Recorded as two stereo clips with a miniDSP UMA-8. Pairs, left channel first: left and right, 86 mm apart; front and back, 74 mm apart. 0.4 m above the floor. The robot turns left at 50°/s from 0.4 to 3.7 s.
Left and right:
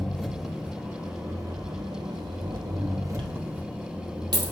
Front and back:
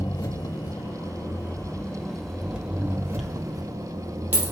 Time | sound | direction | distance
0.0 | an engine running | straight ahead | 0.7 m
3.2 | a dropped coin | 90° right | 1.2 m